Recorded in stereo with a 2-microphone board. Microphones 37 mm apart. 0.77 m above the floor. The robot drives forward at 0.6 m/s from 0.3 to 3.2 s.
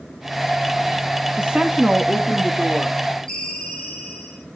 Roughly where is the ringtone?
Centre.